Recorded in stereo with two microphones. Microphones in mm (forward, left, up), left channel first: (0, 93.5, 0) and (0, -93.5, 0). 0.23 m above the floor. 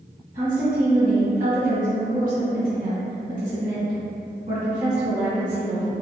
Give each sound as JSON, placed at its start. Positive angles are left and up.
{"t": 0.3, "sound": "a woman speaking", "side_deg": -50, "distance_m": 1.9}